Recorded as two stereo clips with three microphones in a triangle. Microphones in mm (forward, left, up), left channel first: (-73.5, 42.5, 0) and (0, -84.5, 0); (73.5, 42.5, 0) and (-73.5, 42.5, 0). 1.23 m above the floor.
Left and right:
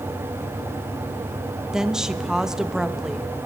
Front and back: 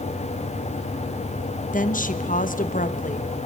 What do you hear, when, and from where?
1.7 s a woman speaking: 25° left, 0.9 m